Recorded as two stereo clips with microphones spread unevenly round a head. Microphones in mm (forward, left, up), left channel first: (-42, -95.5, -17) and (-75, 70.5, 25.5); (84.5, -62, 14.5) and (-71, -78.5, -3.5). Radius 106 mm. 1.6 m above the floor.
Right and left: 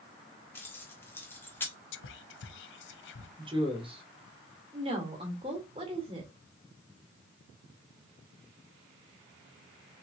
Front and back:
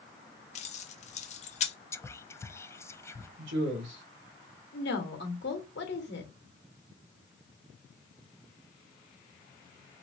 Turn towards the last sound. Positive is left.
turn(degrees=35)